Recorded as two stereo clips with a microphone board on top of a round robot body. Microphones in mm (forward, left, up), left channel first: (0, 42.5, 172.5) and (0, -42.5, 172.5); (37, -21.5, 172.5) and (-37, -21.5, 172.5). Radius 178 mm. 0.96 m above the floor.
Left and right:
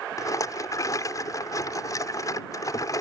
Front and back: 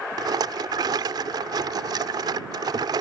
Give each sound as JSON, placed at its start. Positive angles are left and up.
{"t": 0.2, "sound": "a rattle", "azimuth_deg": 140}